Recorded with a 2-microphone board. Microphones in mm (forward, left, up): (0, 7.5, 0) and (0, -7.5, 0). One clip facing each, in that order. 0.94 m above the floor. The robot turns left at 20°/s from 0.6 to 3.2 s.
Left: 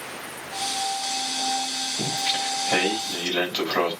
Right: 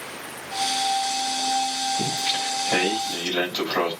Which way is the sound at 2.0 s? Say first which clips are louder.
Right 1 dB; 70° left (ahead or behind).